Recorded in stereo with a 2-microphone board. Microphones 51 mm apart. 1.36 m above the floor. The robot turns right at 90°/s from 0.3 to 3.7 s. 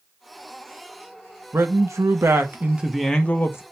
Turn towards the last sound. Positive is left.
turn(degrees=60)